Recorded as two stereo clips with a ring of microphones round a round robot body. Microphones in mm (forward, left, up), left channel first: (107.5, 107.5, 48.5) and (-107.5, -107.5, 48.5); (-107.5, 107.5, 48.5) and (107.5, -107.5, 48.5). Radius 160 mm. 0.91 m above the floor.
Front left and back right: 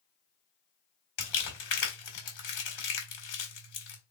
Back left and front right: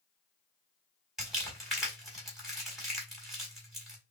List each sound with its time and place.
1.2 s crumpling: 45° left, 1.6 m